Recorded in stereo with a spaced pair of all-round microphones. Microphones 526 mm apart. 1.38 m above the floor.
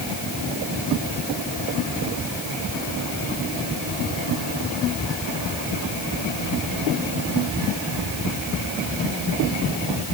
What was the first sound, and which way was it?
Only background noise.